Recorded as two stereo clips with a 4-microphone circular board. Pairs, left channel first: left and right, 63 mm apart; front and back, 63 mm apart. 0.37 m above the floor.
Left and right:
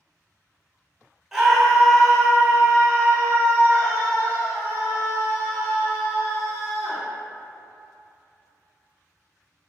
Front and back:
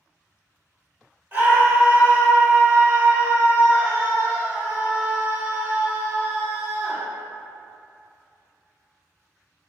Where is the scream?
165° right, 1.4 m; by 7.0 s 120° left, 3.5 m.